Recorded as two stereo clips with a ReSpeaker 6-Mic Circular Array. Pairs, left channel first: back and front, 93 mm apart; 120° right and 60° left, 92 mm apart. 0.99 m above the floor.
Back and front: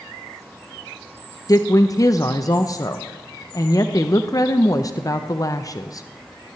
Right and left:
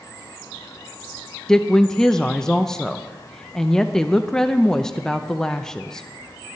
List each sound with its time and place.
1.5 s a woman speaking: 160° left, 0.6 m